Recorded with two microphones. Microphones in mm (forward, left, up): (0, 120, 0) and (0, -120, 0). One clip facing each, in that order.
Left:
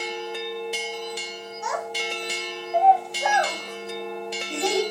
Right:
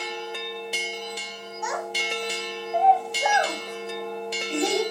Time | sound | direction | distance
1.6 | a child speaking | 30° left (ahead or behind) | 0.9 m